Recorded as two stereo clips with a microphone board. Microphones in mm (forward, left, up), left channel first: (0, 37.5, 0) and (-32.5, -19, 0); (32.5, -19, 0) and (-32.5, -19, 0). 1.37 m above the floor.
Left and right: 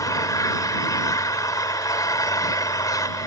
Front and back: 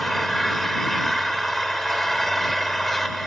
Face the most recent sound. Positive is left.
turn(degrees=85)